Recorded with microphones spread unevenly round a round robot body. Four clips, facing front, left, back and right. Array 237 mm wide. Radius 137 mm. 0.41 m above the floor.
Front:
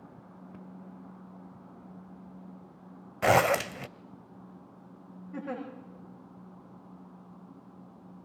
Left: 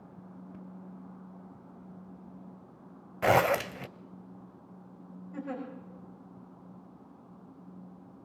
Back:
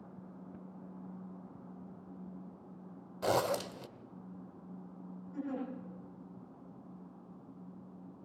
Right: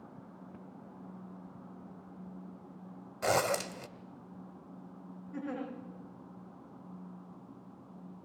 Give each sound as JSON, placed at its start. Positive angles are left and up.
{"t": 3.2, "sound": "a zipper", "azimuth_deg": 15, "distance_m": 0.7}
{"t": 5.3, "sound": "a giggle", "azimuth_deg": -5, "distance_m": 7.5}